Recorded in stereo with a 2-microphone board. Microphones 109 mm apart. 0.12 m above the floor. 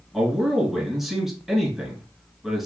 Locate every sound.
0.1 s a man speaking: 5° right (ahead or behind), 1.5 m